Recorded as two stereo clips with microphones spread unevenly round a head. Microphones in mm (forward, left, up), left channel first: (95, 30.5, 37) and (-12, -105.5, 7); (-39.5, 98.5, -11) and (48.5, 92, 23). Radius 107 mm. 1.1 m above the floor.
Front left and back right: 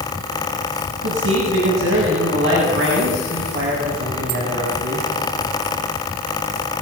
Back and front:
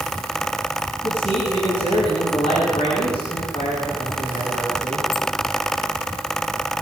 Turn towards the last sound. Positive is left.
turn(degrees=-135)